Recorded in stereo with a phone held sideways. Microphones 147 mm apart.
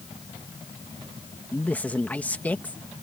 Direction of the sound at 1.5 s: 10° left (ahead or behind).